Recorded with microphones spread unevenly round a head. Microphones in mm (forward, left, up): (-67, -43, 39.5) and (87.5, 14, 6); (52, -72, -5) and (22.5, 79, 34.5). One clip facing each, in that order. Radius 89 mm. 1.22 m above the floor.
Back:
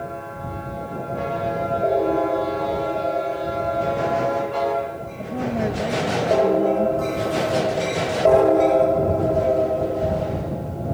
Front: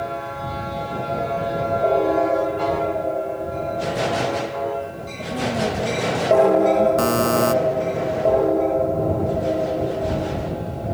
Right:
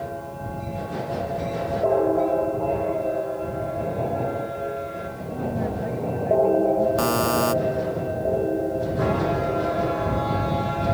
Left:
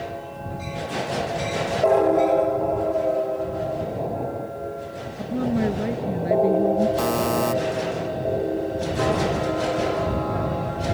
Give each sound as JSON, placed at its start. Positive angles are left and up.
{"t": 5.2, "sound": "a woman speaking", "azimuth_deg": 115}
{"t": 7.0, "sound": "a buzzer", "azimuth_deg": 20}